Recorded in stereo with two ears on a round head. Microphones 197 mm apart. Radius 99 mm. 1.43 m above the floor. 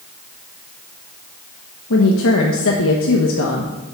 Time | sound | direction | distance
1.9 | a woman speaking | 65° left (ahead or behind) | 1.1 m